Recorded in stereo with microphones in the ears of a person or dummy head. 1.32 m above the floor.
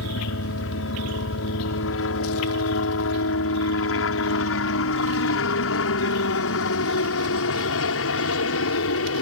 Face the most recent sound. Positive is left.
turn(degrees=70)  # may be behind; listen again after turning